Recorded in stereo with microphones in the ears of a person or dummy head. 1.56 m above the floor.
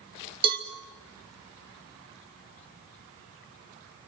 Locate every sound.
0.4 s a cowbell: 30° right (ahead or behind), 2.5 m